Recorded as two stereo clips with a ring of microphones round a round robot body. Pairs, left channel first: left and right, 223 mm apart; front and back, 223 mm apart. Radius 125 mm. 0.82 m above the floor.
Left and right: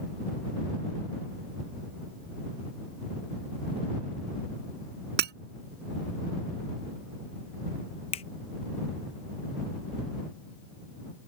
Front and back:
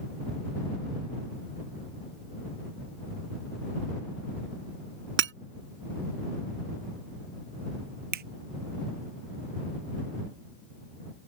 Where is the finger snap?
150° left.